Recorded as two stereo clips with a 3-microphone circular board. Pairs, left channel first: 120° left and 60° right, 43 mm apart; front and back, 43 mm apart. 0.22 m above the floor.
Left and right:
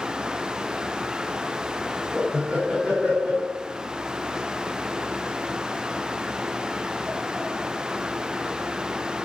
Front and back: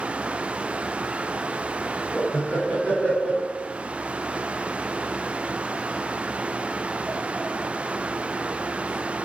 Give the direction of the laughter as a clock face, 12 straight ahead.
1 o'clock.